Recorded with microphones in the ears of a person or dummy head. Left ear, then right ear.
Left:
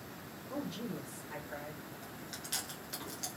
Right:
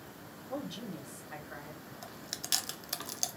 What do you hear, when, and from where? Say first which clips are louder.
0.5 s a man speaking: right 1 dB; 15° right (ahead or behind), 0.7 m; by 1.9 s 15° left (ahead or behind), 1.2 m
2.0 s chewing: right 7 dB; 30° right (ahead or behind), 0.6 m